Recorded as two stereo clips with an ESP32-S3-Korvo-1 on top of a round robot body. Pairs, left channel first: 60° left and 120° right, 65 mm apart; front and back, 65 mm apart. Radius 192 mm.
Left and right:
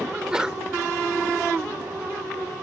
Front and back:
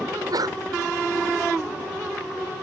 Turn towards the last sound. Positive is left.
turn(degrees=160)